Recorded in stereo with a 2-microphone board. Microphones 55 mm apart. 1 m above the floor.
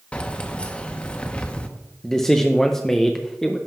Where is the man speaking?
5° left (ahead or behind), 0.6 m.